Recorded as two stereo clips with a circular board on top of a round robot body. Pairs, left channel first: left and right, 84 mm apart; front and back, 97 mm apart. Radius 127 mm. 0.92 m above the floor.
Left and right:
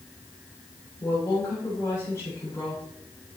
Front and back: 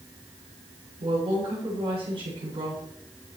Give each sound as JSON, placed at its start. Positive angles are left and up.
{"t": 1.0, "sound": "a woman speaking", "azimuth_deg": 150, "distance_m": 7.5}